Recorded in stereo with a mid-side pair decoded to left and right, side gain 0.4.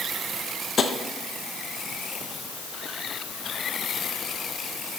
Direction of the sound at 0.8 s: 50° left.